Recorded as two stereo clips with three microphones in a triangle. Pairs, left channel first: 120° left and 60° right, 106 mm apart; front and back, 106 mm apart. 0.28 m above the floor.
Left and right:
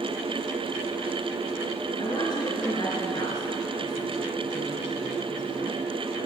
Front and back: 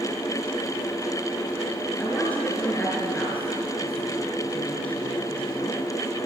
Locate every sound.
2.0 s a woman speaking: 75° left, 3.5 m